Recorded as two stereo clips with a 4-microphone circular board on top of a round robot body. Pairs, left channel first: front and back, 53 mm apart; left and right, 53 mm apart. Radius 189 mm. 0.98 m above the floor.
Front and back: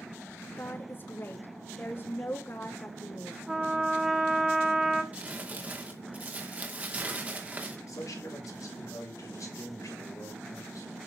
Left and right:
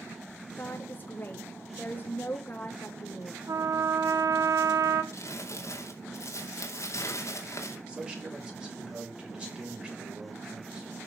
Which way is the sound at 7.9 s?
20° right.